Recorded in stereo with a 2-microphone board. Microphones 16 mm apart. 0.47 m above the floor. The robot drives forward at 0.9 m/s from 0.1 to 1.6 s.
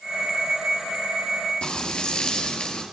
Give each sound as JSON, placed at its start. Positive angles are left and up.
{"t": 1.6, "sound": "frying", "side_deg": 85, "distance_m": 7.5}